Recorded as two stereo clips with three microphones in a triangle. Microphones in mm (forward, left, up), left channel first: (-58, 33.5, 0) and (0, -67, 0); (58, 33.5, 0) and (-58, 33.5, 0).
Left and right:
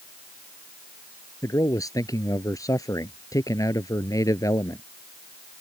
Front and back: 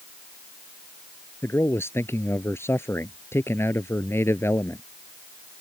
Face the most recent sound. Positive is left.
turn(degrees=65)